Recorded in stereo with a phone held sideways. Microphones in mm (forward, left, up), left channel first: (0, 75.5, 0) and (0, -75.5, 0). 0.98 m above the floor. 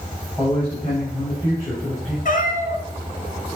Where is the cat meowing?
65° left (ahead or behind), 2 m.